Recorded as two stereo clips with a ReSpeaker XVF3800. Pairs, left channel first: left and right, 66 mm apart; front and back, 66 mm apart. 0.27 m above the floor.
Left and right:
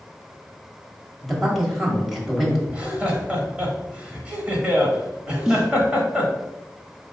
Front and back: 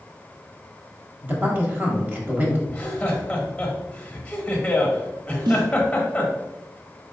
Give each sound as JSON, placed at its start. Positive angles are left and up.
{"t": 1.2, "sound": "a man speaking", "azimuth_deg": -175, "distance_m": 1.0}
{"t": 2.7, "sound": "laughter", "azimuth_deg": -50, "distance_m": 0.9}
{"t": 5.5, "sound": "a snare drum", "azimuth_deg": -170, "distance_m": 0.7}